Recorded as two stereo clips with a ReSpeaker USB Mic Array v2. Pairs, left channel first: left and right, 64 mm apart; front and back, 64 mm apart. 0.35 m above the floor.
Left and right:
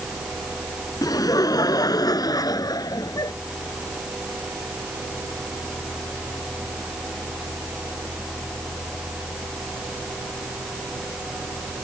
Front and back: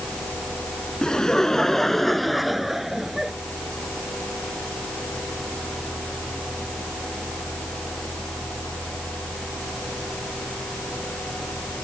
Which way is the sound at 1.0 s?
80° left.